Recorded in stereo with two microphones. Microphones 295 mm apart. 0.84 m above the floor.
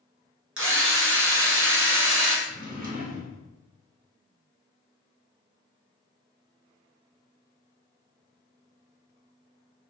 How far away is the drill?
About 0.6 m.